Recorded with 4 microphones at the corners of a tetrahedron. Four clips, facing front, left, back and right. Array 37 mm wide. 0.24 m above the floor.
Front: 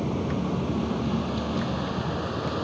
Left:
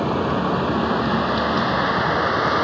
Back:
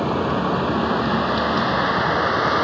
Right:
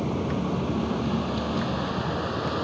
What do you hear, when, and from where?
0.0 s a vehicle: 135° left; by 2.6 s 140° left